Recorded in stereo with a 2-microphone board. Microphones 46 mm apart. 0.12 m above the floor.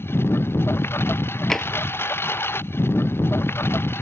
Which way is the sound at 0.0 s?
60° left (ahead or behind).